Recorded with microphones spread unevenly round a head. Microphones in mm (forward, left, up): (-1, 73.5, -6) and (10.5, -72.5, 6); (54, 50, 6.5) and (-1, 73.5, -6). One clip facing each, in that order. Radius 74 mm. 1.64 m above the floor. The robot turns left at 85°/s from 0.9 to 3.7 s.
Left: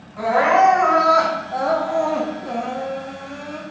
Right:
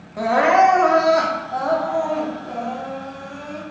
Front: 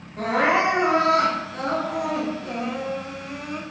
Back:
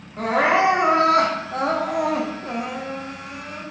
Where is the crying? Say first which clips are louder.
Right 1 dB, back 2 dB; 130° right, 0.7 m; by 3.6 s straight ahead, 0.7 m.